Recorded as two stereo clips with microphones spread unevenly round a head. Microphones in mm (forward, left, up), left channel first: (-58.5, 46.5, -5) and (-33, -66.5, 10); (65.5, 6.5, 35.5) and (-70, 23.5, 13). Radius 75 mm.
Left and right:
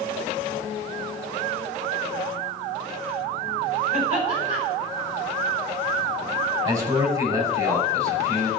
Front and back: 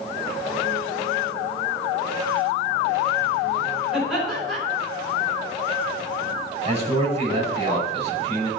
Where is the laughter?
100° right, 5 m.